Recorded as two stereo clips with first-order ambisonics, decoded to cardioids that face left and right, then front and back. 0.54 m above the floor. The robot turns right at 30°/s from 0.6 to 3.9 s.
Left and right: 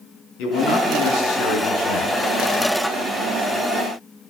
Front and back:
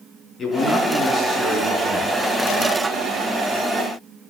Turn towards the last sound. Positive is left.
turn(degrees=170)